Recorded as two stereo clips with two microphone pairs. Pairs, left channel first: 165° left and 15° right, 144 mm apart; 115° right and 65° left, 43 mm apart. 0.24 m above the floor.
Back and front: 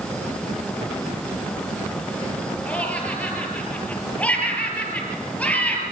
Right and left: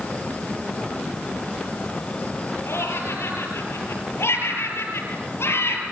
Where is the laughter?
115° right, 6.5 m.